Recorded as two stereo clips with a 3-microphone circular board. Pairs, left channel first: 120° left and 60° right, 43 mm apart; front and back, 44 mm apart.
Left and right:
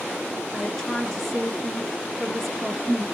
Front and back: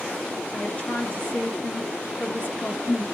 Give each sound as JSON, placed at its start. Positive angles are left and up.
{"t": 0.5, "sound": "a woman speaking", "azimuth_deg": 35, "distance_m": 1.5}